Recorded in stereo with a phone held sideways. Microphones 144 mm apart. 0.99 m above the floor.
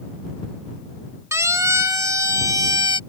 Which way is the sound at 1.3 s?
20° right (ahead or behind).